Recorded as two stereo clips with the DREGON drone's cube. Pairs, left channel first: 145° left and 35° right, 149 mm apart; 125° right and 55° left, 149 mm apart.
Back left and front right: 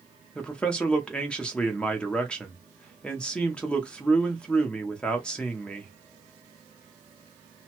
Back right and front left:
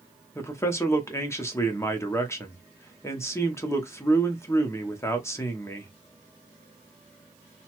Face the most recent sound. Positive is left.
turn(degrees=-145)